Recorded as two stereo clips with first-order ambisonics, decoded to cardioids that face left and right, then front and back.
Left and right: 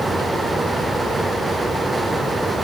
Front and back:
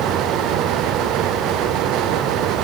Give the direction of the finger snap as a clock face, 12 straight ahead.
I don't hear a finger snap.